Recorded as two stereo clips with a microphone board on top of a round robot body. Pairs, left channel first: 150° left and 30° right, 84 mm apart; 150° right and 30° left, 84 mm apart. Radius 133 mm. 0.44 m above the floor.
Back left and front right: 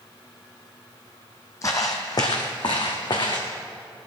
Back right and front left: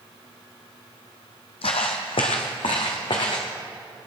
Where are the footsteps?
155° right, 1.0 m; by 3.5 s 175° right, 2 m.